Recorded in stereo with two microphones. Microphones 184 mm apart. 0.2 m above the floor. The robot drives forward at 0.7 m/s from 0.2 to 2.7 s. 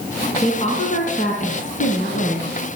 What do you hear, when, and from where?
0.4 s a woman speaking: 35° left (ahead or behind), 2.5 m; by 2.5 s 45° left (ahead or behind), 2.0 m